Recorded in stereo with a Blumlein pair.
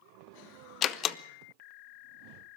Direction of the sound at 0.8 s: 30° left.